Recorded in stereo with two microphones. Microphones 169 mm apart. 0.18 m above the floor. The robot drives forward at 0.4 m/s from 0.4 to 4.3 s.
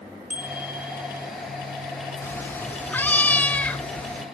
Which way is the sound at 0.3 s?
50° right (ahead or behind).